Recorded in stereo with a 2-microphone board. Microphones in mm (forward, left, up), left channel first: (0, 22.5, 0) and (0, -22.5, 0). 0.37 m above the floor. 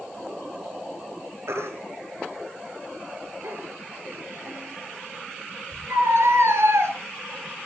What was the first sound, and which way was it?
A baby crying, 80° right.